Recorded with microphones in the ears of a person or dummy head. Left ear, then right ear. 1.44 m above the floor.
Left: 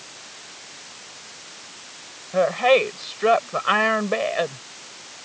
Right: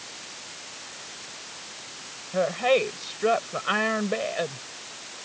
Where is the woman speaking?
30° left (ahead or behind).